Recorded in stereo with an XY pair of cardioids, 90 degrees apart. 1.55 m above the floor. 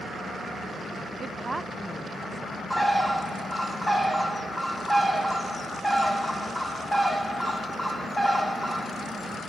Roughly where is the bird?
Ahead.